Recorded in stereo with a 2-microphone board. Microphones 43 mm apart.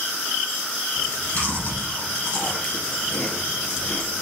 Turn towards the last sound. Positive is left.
turn(degrees=45)  # may be behind; listen again after turning